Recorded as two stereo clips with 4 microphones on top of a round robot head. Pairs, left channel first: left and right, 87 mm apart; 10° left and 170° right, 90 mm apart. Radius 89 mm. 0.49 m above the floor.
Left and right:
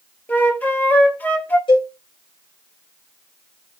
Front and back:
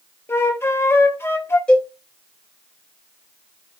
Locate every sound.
0.3 s a flute: 40° left, 1.2 m
1.7 s a cowbell: 85° left, 2.5 m